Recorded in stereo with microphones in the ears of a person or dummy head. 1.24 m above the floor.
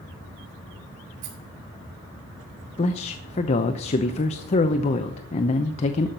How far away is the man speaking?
About 0.7 m.